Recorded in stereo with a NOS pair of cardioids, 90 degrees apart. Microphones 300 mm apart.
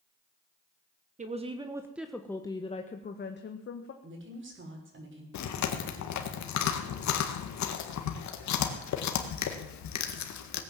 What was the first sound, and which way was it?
A woman speaking, 25° right.